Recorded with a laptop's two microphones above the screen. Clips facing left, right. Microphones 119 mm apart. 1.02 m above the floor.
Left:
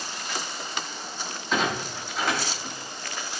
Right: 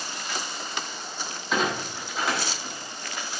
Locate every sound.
1.5 s a clunk: 5° right (ahead or behind), 2.5 m